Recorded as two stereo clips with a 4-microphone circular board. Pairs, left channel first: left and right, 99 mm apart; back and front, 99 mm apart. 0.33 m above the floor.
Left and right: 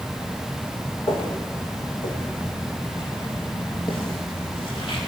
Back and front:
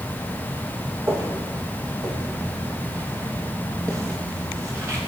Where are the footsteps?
55° left, 9.5 m; by 5.0 s 60° left, 13.5 m.